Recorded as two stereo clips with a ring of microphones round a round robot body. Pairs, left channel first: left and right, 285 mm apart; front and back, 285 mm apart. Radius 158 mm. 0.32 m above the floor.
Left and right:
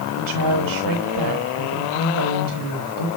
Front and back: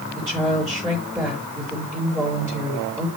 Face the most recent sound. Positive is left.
turn(degrees=-100)